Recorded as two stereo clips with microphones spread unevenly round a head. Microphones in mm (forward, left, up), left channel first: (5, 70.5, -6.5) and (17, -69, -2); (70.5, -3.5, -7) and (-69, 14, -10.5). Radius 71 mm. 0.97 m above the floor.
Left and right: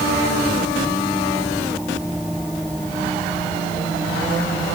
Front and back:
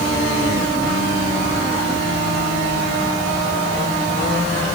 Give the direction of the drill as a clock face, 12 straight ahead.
No drill in this recording.